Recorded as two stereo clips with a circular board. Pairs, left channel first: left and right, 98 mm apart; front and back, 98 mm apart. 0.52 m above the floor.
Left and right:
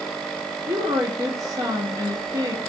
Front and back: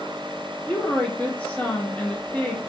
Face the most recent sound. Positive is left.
turn(degrees=-70)